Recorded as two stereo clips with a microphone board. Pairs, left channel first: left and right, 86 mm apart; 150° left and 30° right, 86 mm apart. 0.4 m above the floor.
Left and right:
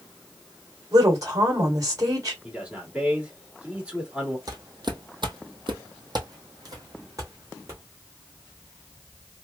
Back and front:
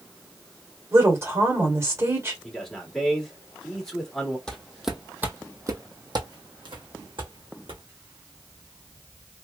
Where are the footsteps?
130° right, 0.9 m; by 7.8 s 35° right, 1.9 m.